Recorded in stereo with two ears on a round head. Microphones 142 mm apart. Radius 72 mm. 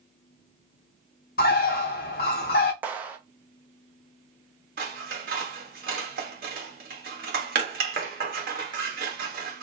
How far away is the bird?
About 0.6 m.